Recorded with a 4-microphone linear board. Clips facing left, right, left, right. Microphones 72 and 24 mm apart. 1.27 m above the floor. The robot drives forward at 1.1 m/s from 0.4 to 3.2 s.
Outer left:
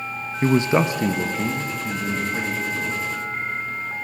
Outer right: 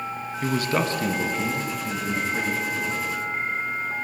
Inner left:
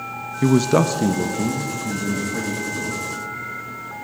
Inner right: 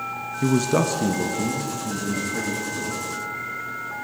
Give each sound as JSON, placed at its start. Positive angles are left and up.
{"t": 0.4, "sound": "a man speaking", "side_deg": 30, "distance_m": 0.5}